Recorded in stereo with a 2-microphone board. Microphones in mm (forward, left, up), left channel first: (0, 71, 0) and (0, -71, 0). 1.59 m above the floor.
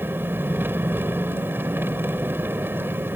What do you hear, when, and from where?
0.0 s an engine running: 15° right (ahead or behind)